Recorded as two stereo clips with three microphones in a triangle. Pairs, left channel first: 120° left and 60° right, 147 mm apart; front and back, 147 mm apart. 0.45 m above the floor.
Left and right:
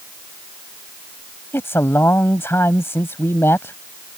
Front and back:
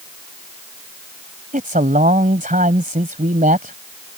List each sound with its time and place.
1.5 s a man speaking: 170° right